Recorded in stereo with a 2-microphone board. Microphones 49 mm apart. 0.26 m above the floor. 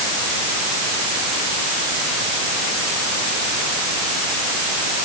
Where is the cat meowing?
I don't hear a cat meowing.